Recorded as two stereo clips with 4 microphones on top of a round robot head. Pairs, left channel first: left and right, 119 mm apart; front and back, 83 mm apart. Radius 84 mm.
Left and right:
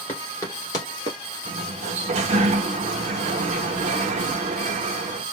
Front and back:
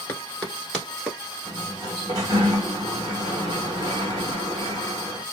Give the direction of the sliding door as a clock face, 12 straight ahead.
4 o'clock.